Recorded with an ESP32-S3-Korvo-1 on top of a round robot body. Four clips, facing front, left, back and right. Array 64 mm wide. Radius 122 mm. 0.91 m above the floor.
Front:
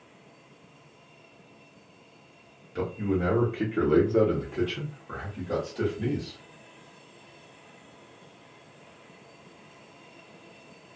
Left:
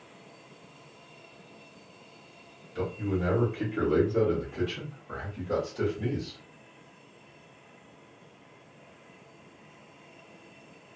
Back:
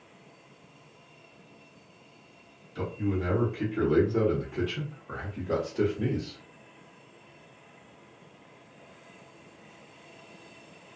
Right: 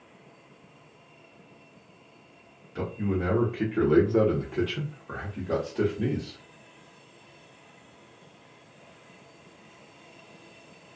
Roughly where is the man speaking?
Ahead right.